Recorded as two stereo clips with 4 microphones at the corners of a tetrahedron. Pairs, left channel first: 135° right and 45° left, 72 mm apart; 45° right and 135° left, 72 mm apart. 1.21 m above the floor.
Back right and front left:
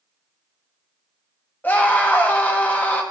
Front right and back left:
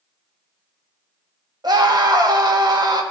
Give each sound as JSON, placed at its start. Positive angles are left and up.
{"t": 1.6, "sound": "a scream", "azimuth_deg": 160, "distance_m": 1.7}